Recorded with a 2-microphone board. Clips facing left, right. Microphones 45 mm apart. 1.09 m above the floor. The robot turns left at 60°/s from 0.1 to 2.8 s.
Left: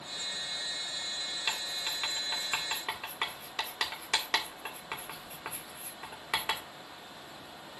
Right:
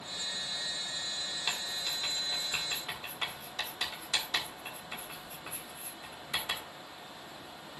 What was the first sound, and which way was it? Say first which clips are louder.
Writing: left 1 dB; 10° left (ahead or behind).